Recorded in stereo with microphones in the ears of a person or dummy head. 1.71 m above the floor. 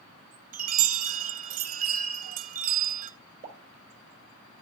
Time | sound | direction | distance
0.5 | a chime | 45° right (ahead or behind) | 0.5 m
3.4 | a pop | 40° right (ahead or behind) | 3.5 m